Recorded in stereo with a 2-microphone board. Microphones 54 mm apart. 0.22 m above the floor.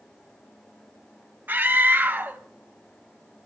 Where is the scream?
35° right (ahead or behind), 1.3 m.